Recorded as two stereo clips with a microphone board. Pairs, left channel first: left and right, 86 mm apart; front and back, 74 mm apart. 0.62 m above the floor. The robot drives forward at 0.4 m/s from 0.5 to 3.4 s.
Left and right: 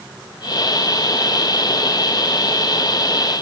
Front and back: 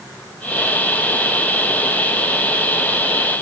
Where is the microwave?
No microwave in this recording.